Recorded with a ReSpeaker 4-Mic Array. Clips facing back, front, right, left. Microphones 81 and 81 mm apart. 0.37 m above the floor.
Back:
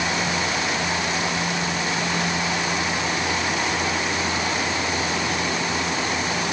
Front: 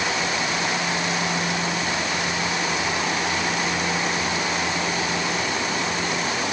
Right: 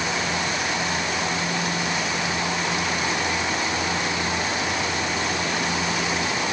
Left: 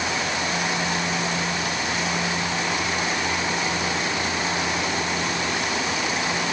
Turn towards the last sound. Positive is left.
No sound to turn to.